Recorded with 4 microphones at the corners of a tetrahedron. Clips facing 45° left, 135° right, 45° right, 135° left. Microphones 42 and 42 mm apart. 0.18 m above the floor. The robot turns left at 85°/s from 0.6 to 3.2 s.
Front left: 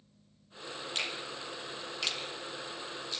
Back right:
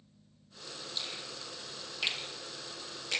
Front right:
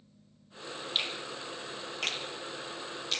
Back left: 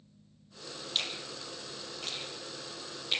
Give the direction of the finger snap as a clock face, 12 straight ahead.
11 o'clock.